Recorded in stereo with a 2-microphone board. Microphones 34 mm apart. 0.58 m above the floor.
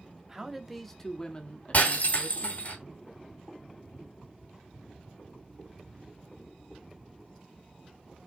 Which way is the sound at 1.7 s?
55° left (ahead or behind).